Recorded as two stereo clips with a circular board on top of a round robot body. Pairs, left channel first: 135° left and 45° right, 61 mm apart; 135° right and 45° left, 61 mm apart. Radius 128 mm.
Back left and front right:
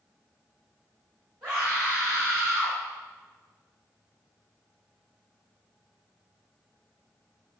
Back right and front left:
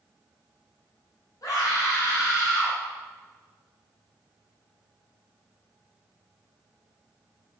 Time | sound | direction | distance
1.4 | a scream | 110° right | 3.5 m